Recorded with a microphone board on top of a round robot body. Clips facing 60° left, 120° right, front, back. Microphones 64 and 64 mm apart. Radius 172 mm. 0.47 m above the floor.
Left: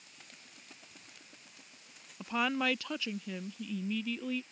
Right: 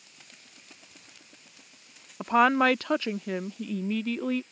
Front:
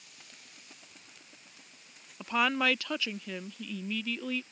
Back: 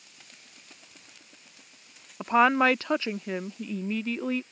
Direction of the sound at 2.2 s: 140° right.